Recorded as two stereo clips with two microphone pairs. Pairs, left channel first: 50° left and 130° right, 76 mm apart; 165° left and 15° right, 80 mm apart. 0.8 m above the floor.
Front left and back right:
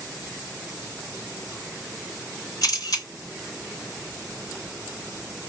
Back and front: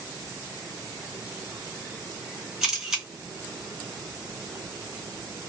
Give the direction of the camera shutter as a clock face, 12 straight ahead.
10 o'clock.